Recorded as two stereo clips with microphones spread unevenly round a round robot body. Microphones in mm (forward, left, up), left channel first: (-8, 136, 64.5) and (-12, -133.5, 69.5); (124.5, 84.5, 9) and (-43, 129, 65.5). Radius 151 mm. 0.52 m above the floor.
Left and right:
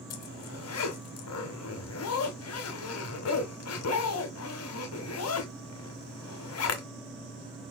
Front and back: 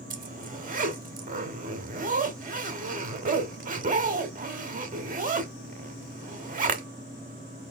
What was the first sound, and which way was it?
A zipper, 125° left.